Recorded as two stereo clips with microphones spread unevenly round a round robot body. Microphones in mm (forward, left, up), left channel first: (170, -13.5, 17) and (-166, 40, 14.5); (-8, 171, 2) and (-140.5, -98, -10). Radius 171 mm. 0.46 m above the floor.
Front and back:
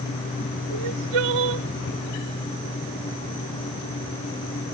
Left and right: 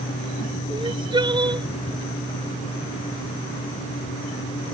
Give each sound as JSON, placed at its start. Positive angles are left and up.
{"t": 0.7, "sound": "crying", "azimuth_deg": 170}